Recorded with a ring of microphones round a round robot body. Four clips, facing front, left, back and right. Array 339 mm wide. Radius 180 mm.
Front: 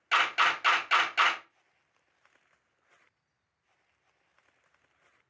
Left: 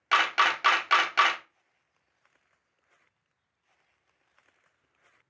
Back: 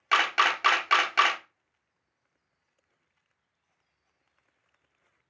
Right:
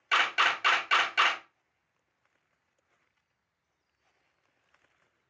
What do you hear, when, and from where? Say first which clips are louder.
0.1 s a camera shutter: left 3 dB, back 2 dB; 135° left, 0.9 m